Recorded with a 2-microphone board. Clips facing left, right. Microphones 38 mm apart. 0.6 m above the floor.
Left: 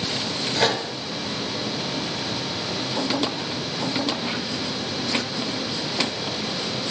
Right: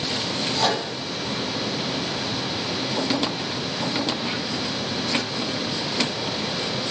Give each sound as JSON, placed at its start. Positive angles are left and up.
{"t": 0.6, "sound": "a microwave", "side_deg": 40, "distance_m": 6.5}